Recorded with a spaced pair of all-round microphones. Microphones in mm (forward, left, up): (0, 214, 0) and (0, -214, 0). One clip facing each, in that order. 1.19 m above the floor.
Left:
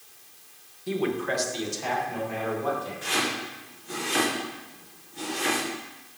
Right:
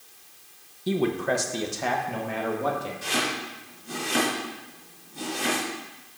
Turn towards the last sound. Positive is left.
turn(degrees=-60)  # may be behind; listen again after turning